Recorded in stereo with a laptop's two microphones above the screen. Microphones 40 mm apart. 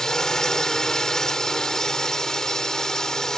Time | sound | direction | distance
0.0 | a drone | 15° left (ahead or behind) | ?